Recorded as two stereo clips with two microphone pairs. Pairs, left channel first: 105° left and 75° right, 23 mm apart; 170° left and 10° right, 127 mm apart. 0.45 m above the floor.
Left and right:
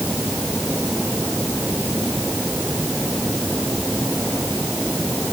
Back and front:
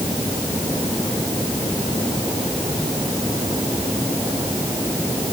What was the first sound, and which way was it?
Only background noise.